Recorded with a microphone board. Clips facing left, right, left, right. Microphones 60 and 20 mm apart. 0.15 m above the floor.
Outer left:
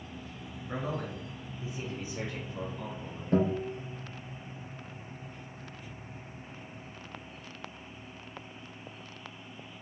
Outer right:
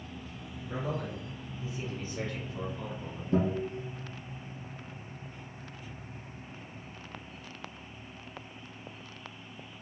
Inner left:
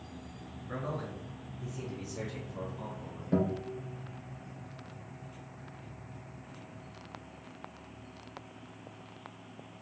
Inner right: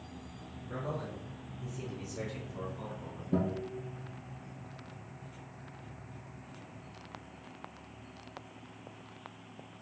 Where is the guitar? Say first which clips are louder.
Outer left 1 dB, inner left 2 dB; 50° left (ahead or behind), 2 m.